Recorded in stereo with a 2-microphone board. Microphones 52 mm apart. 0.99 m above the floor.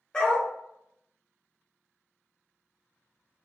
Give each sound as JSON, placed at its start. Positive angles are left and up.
{"t": 0.1, "sound": "a dog barking", "side_deg": 15, "distance_m": 0.7}